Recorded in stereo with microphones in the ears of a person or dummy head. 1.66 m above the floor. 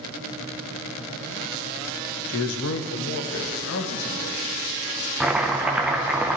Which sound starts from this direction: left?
A man speaking, at 2.3 s.